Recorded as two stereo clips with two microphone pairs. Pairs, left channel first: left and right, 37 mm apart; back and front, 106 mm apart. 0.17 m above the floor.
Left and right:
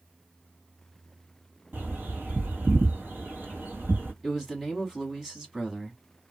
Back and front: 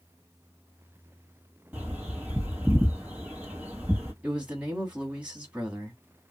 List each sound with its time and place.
1.7 s a bird: 75° right, 1.5 m
4.2 s a man speaking: 50° right, 1.0 m